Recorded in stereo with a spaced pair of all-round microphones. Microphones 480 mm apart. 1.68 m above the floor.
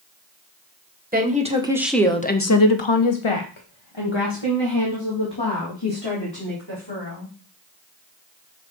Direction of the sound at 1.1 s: 20° right (ahead or behind).